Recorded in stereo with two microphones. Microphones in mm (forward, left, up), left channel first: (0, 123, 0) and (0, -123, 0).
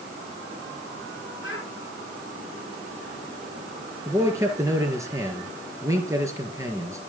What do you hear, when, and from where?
1.4 s a child speaking: 50° left (ahead or behind), 5.5 m
4.0 s a man speaking: 10° right (ahead or behind), 4 m